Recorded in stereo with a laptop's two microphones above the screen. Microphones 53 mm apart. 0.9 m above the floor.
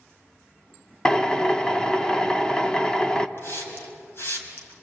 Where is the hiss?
55° left (ahead or behind), 3.5 m.